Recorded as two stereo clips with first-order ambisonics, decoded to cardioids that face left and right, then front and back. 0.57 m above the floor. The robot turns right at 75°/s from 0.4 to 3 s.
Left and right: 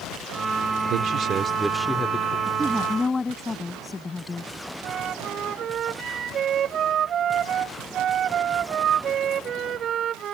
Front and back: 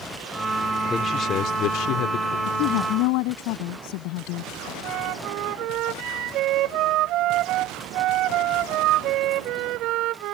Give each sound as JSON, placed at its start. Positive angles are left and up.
{"t": 0.9, "sound": "a man speaking", "azimuth_deg": -70}
{"t": 2.5, "sound": "a woman speaking", "azimuth_deg": -30}
{"t": 4.8, "sound": "a flute", "azimuth_deg": -145}